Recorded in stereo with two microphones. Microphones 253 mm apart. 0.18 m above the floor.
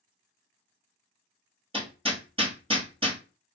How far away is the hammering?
About 1.1 m.